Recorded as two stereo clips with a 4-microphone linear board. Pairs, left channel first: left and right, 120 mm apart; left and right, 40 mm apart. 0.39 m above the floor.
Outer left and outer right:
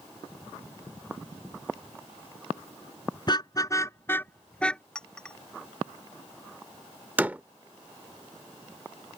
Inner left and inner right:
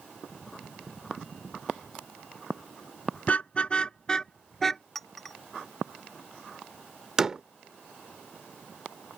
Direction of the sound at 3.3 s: 40° left (ahead or behind).